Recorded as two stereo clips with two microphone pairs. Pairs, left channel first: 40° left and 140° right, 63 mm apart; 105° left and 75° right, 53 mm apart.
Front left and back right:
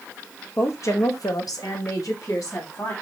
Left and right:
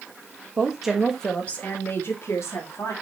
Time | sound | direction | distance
0.6 | a woman speaking | straight ahead | 1.9 m